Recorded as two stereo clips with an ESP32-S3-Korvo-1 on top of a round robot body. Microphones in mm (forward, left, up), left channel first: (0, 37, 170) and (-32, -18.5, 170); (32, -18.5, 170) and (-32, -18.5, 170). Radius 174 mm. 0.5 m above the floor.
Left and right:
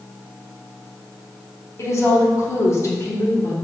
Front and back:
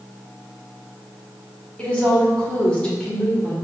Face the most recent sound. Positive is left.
turn(degrees=65)